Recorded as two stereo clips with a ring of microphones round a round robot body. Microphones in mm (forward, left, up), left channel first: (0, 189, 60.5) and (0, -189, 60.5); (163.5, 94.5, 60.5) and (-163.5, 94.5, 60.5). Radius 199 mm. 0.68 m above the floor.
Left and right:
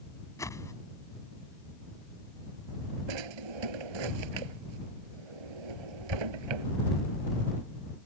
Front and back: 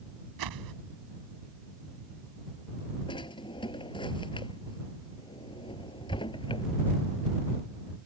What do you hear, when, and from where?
0.4 s a whoosh: 170° left
3.1 s a drawer: 80° right